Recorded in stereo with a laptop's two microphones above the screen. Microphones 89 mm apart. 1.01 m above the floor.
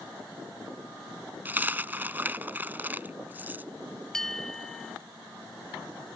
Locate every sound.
1.4 s a dropped coin: 20° right (ahead or behind)
4.1 s a bell: 5° left (ahead or behind)